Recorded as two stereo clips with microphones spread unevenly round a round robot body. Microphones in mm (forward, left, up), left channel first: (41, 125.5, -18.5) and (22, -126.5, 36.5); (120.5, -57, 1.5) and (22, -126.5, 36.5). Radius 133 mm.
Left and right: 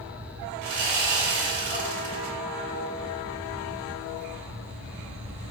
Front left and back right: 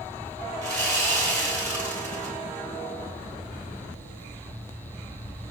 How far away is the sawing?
About 2.5 m.